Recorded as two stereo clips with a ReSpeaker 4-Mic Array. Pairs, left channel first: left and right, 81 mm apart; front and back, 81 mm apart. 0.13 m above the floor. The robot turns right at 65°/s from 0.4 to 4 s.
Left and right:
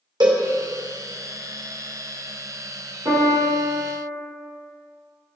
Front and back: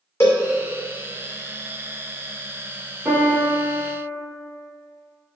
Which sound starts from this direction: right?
A piano, at 3.0 s.